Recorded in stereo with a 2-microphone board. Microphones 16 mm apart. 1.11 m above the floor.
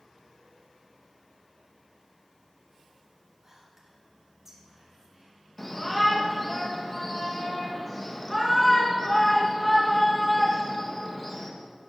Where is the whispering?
25° right (ahead or behind), 2.5 m.